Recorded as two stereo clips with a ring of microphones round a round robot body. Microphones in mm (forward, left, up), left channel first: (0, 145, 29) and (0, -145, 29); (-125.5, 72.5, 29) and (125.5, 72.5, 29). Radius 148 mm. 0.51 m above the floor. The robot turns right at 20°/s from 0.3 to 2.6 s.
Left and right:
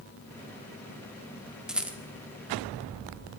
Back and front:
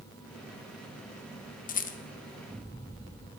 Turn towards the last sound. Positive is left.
turn(degrees=-160)